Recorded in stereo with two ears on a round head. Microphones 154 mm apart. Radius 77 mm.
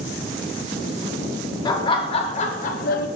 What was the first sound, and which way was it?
Laughter, 25° left (ahead or behind).